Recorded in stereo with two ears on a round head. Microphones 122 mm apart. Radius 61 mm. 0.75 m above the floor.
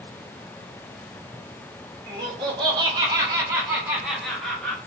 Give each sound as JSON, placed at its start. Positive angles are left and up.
{"t": 2.1, "sound": "laughter", "side_deg": -30, "distance_m": 1.0}